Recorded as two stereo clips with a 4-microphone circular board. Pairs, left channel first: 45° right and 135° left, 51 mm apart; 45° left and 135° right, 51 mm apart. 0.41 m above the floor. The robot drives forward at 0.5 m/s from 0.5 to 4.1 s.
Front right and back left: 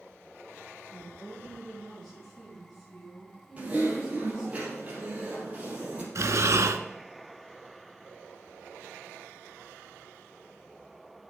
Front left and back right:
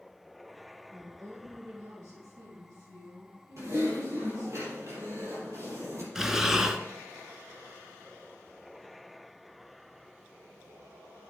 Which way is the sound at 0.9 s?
125° right.